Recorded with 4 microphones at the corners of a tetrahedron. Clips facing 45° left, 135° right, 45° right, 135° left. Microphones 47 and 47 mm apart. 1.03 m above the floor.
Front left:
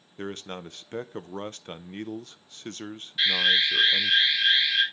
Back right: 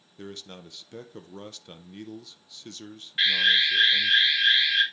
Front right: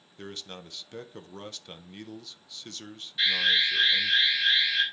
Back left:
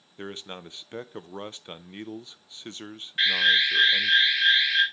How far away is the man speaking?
About 0.6 m.